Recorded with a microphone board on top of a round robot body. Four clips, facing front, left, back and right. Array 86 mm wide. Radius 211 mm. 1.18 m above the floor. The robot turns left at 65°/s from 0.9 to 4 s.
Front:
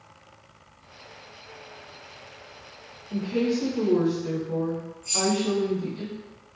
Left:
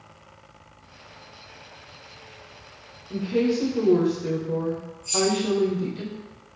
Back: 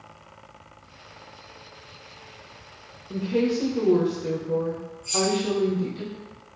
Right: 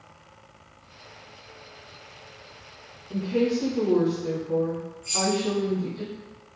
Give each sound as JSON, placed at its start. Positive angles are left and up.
{"t": 3.1, "sound": "a woman speaking", "azimuth_deg": -175, "distance_m": 1.4}
{"t": 5.0, "sound": "keys jangling", "azimuth_deg": -80, "distance_m": 0.5}